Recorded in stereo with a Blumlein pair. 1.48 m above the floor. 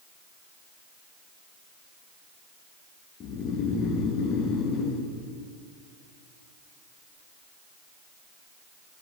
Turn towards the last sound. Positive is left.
turn(degrees=30)